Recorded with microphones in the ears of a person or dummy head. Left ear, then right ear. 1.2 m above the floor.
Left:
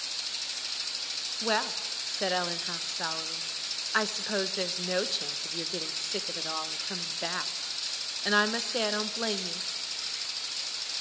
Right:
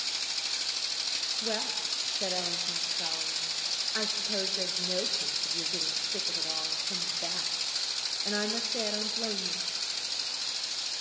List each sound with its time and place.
1.4 s a woman speaking: 50° left (ahead or behind), 0.8 m